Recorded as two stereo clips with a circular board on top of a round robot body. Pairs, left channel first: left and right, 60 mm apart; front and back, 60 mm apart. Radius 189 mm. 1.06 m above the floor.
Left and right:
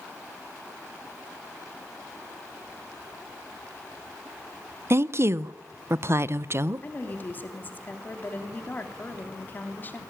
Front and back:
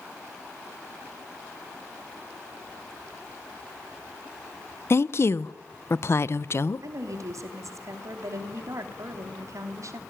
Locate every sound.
4.9 s a woman speaking: 45° right, 0.8 m
6.8 s a woman speaking: 150° left, 3 m